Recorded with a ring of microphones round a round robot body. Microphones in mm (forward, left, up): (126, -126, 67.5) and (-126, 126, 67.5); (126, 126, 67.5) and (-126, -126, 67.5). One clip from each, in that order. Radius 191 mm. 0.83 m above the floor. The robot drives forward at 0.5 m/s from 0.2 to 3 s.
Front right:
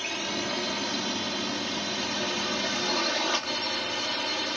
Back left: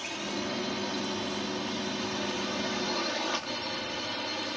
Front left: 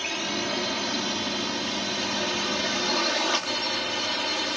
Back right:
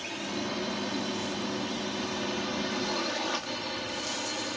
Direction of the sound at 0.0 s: 5° left.